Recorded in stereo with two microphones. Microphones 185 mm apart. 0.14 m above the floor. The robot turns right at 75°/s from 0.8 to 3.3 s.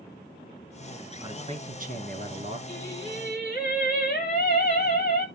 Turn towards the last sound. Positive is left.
turn(degrees=50)